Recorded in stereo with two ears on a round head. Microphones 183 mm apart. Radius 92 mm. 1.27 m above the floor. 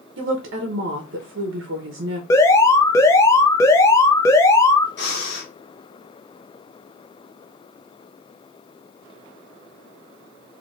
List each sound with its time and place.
0.2 s a woman speaking: 60° right (ahead or behind), 0.9 m
2.3 s an alarm: 15° left (ahead or behind), 0.6 m
5.0 s breathing: 55° left (ahead or behind), 1.8 m